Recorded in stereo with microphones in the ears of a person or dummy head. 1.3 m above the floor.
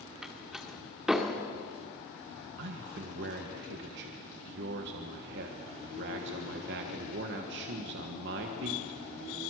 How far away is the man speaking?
About 1.4 m.